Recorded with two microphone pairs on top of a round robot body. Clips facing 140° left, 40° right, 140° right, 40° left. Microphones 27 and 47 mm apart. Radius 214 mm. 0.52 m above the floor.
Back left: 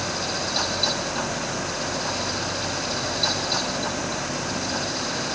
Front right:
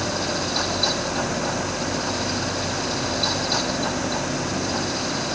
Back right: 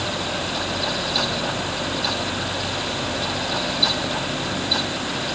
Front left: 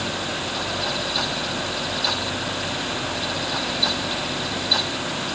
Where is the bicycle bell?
No bicycle bell in this recording.